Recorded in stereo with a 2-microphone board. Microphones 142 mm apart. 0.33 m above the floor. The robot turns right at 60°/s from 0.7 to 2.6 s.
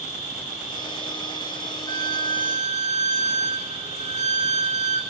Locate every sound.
0.0 s an insect: 115° left, 4.5 m; by 5.1 s 130° right, 4.5 m
1.9 s a violin: 90° right, 0.8 m; by 5.0 s 45° right, 0.8 m